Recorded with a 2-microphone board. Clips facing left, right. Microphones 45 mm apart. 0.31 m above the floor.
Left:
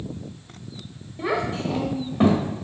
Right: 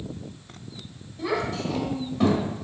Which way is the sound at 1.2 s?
30° left (ahead or behind).